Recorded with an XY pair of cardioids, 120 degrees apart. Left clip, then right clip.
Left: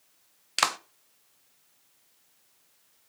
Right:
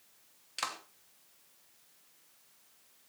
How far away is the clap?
About 0.8 m.